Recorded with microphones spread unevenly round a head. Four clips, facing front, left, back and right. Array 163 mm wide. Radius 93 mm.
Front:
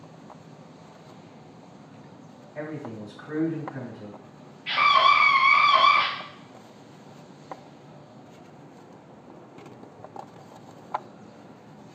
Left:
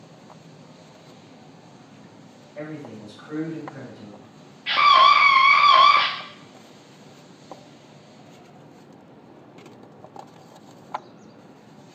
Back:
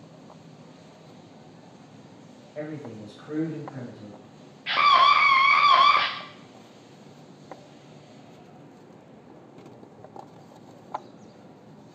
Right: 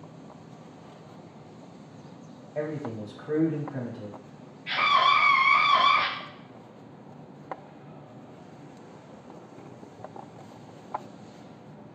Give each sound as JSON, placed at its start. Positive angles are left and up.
{"t": 2.5, "sound": "a man speaking", "azimuth_deg": -100, "distance_m": 1.2}
{"t": 4.7, "sound": "a scream", "azimuth_deg": 145, "distance_m": 0.5}